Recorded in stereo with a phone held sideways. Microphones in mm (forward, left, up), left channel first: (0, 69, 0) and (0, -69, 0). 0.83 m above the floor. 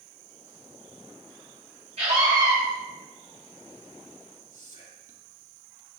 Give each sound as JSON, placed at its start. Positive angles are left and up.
{"t": 2.0, "sound": "a scream", "side_deg": -50, "distance_m": 1.8}
{"t": 4.5, "sound": "whispering", "side_deg": 65, "distance_m": 2.0}